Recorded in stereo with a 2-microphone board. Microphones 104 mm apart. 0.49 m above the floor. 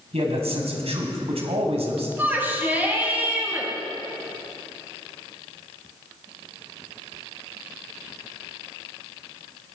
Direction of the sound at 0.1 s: 75° right (ahead or behind).